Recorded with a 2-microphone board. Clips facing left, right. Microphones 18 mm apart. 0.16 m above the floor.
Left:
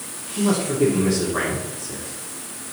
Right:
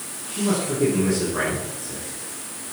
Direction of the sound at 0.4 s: 25° left (ahead or behind).